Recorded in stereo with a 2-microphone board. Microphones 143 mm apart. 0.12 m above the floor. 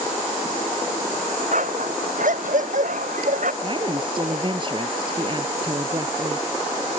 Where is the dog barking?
65° right (ahead or behind).